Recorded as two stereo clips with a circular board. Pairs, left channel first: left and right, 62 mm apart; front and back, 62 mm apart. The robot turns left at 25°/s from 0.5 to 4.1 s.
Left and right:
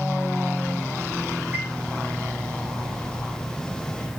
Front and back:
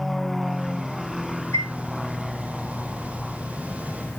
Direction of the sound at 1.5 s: 30° right.